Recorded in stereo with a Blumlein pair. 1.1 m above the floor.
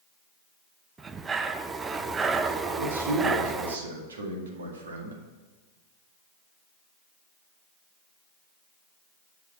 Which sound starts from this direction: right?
A man speaking, at 2.8 s.